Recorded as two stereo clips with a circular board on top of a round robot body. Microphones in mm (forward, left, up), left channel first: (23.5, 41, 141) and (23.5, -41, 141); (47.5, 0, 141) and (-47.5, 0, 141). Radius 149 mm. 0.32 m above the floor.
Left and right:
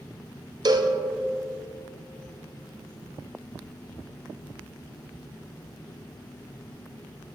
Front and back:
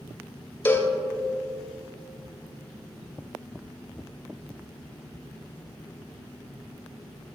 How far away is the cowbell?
About 0.8 m.